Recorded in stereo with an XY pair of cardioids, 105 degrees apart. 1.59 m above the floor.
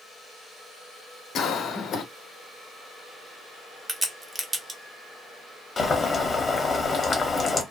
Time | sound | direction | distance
1.4 | a cough | 65° left | 0.8 m
3.9 | a crack | 15° right | 0.8 m
5.8 | boiling | 25° left | 0.9 m